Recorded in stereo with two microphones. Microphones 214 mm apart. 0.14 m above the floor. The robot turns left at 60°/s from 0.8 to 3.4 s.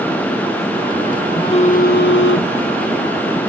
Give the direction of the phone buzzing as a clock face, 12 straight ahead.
7 o'clock.